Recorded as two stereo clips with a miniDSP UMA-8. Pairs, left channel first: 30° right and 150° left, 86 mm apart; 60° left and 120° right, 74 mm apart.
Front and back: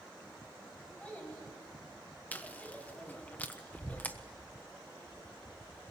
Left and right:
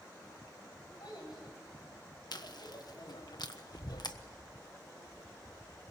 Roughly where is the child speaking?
Ahead left.